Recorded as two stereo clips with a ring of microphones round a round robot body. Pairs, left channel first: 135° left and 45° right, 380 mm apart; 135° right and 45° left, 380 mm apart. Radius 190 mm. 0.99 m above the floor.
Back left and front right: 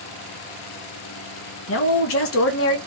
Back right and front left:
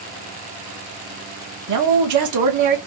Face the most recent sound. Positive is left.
turn(degrees=85)